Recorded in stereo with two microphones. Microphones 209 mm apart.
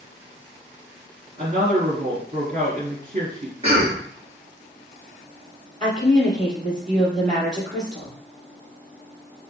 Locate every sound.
1.4 s a woman speaking: 40° right (ahead or behind), 1.8 m
3.6 s a cough: 30° right (ahead or behind), 1.5 m
5.8 s a woman speaking: 40° right (ahead or behind), 2.5 m